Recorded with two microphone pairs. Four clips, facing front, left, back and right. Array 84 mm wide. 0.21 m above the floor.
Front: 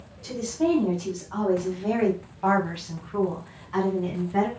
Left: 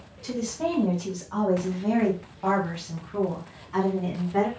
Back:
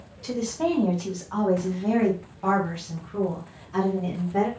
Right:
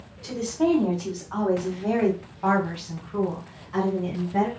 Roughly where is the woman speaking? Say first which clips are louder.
Right 5 dB, front 1 dB; behind right.